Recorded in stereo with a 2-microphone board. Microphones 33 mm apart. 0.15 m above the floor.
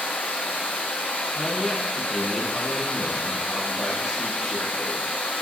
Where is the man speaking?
5° right (ahead or behind), 3.5 m.